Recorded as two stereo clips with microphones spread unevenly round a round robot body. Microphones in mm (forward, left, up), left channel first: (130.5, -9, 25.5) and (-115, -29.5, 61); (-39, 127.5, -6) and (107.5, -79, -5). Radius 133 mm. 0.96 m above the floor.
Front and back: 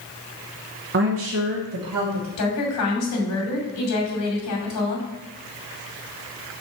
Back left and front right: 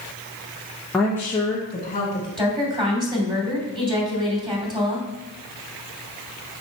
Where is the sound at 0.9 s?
145° right, 1.0 m; by 2.3 s 175° right, 1.5 m.